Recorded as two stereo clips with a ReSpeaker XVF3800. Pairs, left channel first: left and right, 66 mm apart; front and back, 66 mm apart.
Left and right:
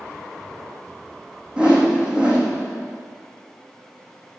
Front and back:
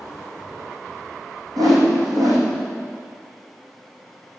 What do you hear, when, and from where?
1.6 s a whoosh: 165° right, 3 m